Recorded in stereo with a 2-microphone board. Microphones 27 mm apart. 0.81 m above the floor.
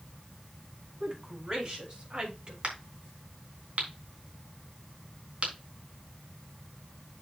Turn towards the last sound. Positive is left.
turn(degrees=-55)  # may be behind; listen again after turning